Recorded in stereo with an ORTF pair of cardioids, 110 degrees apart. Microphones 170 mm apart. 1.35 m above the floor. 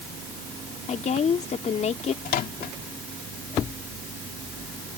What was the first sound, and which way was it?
A woman speaking, 45° left.